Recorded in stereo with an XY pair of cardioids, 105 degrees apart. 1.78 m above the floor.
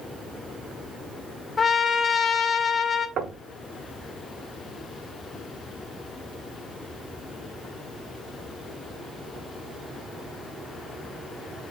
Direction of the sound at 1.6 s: 35° left.